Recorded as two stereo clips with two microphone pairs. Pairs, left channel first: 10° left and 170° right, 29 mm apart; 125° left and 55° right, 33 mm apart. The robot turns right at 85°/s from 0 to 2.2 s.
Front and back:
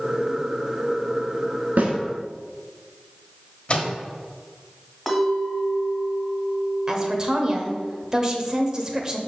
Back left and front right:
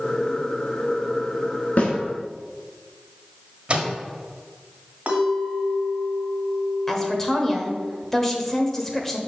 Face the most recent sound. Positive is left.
turn(degrees=-170)